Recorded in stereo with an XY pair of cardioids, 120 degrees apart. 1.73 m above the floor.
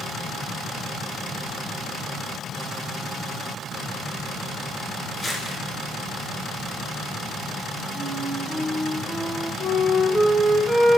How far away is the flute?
About 2.5 m.